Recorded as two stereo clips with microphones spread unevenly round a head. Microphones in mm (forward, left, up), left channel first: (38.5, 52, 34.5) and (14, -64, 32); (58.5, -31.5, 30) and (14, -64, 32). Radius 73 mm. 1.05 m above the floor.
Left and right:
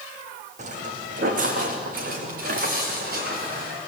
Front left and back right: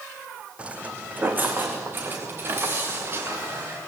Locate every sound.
0.6 s footsteps: 75° right, 2.5 m; by 3.8 s 100° right, 6.5 m